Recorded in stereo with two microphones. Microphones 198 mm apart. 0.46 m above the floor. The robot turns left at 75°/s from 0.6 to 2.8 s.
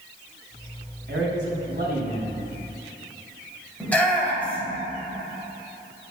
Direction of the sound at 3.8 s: 10° left (ahead or behind).